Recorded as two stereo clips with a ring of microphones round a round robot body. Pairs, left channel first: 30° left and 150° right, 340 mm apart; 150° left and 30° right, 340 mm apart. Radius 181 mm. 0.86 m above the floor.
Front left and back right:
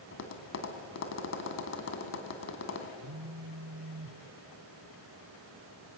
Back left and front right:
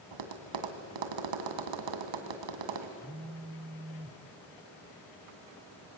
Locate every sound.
0.1 s tapping: 20° right, 2 m
3.0 s a phone buzzing: 110° right, 1.7 m